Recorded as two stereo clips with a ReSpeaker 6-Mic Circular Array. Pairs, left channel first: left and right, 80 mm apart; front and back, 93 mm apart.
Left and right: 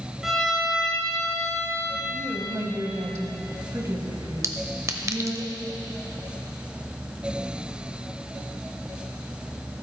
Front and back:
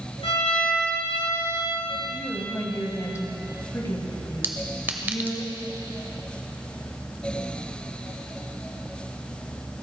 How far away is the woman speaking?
About 2.0 m.